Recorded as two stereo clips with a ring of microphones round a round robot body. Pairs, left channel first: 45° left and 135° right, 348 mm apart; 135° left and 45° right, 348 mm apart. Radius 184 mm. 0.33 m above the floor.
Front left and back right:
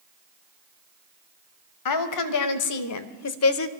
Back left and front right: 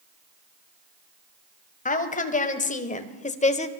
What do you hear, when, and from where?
1.9 s a woman speaking: 70° left, 2 m; by 3.7 s 75° left, 1.2 m